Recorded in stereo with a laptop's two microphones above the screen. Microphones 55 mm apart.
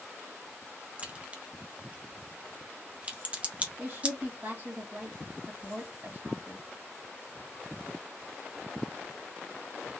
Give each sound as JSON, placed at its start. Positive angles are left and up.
{"t": 1.0, "sound": "a crack", "side_deg": -25, "distance_m": 0.6}
{"t": 3.8, "sound": "a woman speaking", "side_deg": -50, "distance_m": 1.5}